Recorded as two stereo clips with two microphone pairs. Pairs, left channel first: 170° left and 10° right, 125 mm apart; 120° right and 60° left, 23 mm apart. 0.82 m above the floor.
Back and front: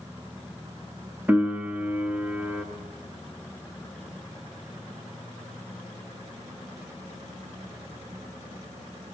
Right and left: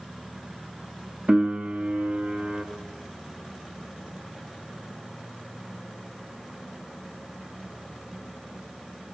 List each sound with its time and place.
1.3 s a piano: 65° left, 3 m